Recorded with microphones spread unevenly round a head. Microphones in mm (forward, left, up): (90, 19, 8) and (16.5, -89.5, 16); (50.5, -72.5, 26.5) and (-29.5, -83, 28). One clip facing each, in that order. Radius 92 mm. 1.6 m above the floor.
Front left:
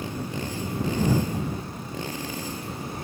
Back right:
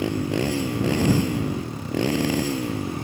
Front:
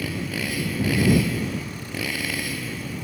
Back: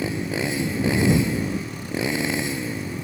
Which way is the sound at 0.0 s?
105° right.